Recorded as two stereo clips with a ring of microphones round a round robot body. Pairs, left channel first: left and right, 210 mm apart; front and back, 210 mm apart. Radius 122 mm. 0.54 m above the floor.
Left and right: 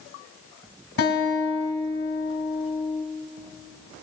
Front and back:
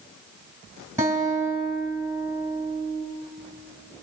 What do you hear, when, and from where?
1.0 s a guitar: 100° left, 3.5 m